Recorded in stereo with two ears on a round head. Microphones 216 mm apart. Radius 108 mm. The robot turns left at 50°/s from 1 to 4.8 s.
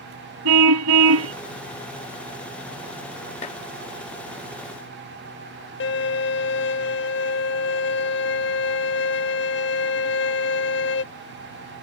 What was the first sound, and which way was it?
A car horn, 75° right (ahead or behind).